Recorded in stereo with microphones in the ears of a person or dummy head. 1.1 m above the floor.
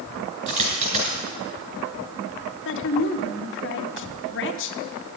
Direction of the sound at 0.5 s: 40° right (ahead or behind).